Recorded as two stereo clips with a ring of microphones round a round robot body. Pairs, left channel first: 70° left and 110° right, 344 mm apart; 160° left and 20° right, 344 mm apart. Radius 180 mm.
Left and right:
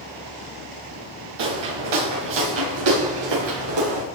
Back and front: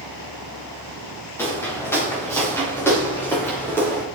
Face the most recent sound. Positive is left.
turn(degrees=-120)